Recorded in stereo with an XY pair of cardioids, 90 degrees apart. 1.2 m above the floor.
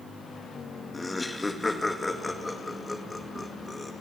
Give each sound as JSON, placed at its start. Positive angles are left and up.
{"t": 0.9, "sound": "laughter", "azimuth_deg": 20, "distance_m": 1.8}